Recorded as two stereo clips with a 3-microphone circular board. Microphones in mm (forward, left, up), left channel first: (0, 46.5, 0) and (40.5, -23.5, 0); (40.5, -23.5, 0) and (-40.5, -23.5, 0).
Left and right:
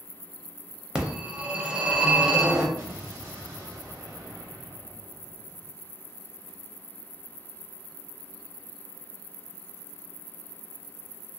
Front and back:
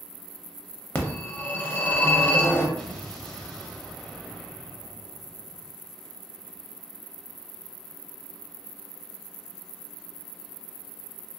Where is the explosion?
75° right, 0.9 m.